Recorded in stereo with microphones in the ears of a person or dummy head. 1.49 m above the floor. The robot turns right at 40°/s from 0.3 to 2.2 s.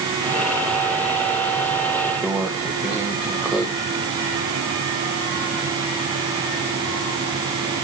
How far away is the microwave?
About 1.6 m.